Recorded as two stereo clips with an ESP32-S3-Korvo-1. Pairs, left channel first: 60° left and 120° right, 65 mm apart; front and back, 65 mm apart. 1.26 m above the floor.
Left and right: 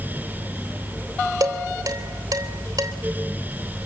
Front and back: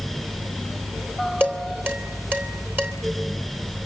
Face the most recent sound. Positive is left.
turn(degrees=-120)